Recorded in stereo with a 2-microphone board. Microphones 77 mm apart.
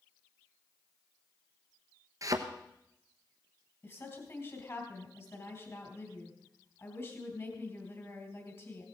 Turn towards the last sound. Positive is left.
turn(degrees=40)  # may be behind; listen again after turning